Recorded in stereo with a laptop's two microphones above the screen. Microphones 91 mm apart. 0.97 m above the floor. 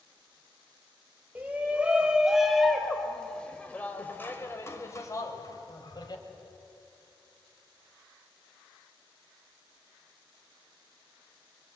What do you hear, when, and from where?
1.4 s a shout: 20° right (ahead or behind), 4 m; by 6.2 s 45° left (ahead or behind), 4.5 m